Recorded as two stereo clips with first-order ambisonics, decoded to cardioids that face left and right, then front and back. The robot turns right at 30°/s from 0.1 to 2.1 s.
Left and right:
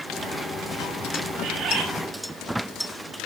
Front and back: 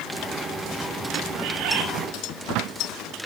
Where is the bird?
150° right, 4.5 m; by 1.9 s 135° right, 4.5 m.